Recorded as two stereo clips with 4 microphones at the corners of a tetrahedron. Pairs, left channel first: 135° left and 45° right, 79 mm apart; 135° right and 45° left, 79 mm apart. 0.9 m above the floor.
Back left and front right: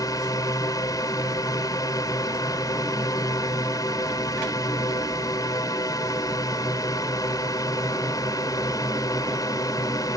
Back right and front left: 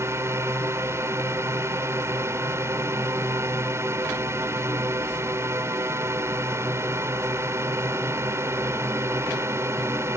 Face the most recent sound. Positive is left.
turn(degrees=100)